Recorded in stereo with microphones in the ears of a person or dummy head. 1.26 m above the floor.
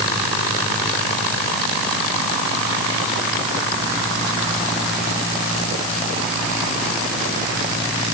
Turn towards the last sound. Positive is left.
No sound to turn to.